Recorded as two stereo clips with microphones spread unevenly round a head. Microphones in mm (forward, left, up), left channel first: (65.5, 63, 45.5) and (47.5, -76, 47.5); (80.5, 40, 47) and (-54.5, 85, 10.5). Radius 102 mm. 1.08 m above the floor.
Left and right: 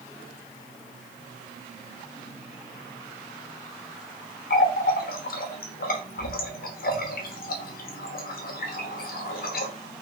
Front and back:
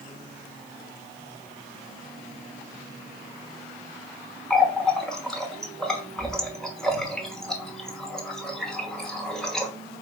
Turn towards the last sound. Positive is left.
turn(degrees=70)